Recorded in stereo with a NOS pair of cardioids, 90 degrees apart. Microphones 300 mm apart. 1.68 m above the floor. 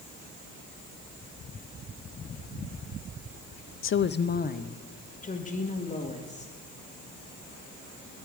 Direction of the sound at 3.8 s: 45° left.